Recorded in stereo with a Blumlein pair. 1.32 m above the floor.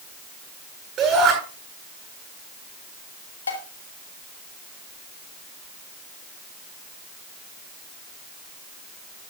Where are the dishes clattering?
70° left, 2 m.